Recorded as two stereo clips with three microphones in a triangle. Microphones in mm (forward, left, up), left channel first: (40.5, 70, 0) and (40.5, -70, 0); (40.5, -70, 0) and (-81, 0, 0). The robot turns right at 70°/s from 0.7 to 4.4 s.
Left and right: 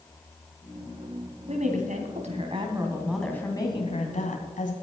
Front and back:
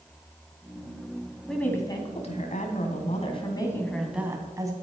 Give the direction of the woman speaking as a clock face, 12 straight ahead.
4 o'clock.